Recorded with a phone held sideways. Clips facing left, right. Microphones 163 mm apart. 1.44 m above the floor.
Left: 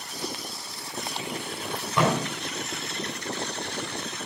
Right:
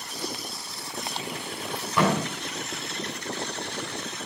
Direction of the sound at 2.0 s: 5° right (ahead or behind).